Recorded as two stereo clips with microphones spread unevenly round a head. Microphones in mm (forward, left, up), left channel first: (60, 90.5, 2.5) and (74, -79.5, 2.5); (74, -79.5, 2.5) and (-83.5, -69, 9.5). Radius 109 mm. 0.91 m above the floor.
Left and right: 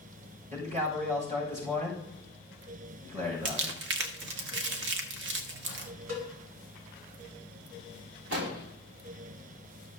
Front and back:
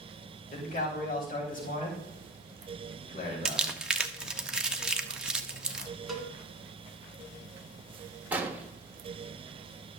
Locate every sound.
0.5 s a man speaking: 40° right, 5 m
3.5 s crumpling: 95° right, 1.0 m
6.1 s a cowbell: 95° right, 3.5 m
8.3 s an explosion: 105° right, 1.6 m